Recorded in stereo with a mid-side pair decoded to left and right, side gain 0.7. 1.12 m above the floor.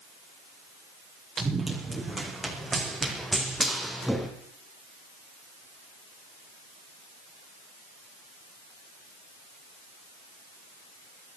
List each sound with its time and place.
1.4 s running footsteps: 20° right, 5.5 m; by 4.3 s 5° left, 3 m